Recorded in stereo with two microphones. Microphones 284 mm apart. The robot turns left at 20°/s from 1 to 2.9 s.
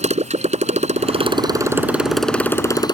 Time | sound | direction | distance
0.0 | a motorcycle | 155° right | ?